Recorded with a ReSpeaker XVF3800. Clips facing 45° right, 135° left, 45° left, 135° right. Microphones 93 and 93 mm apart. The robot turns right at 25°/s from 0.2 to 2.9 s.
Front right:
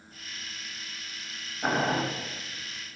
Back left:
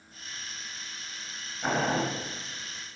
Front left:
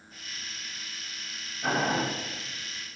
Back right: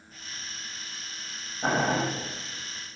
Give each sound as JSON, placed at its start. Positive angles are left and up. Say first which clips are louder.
{"t": 1.6, "sound": "boiling", "louder": "front right 1 dB, back right 2 dB", "azimuth_deg": -110, "distance_m": 0.9}